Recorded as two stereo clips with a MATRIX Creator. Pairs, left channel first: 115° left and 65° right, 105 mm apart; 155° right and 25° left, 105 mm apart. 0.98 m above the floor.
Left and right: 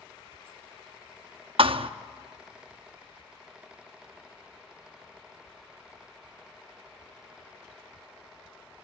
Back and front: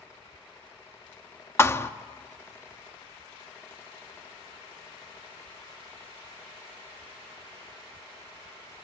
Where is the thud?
90° right, 0.7 m.